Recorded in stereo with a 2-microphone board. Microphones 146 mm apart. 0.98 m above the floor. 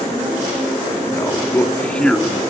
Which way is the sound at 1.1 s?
20° left (ahead or behind).